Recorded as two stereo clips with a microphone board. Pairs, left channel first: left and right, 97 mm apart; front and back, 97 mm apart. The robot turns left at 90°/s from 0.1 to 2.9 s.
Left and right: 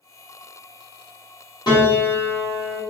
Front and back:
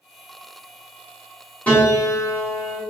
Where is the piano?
70° left, 1.3 m; by 2.8 s 35° right, 1.3 m.